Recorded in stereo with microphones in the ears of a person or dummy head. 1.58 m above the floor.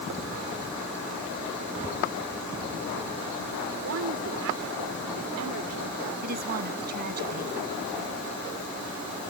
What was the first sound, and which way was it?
A woman speaking, 80° right.